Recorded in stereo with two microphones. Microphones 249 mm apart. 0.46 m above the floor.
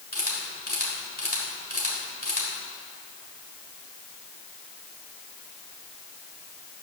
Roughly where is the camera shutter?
Left.